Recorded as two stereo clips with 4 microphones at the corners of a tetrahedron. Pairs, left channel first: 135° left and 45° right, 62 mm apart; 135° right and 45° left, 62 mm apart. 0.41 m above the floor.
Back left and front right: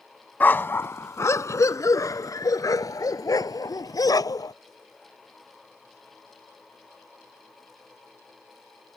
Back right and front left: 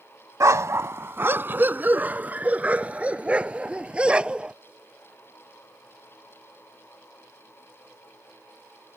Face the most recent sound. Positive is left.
turn(degrees=120)